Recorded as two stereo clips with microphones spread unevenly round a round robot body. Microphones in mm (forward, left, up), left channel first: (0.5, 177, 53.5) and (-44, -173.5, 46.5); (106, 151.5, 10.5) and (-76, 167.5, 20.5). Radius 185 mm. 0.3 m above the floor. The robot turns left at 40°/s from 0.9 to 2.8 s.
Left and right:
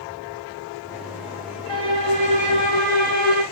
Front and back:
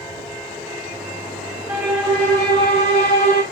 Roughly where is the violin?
Left.